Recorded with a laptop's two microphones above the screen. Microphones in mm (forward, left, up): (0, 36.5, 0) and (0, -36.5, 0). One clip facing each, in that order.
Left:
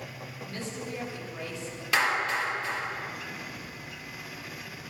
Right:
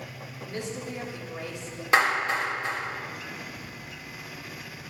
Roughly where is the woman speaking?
Centre.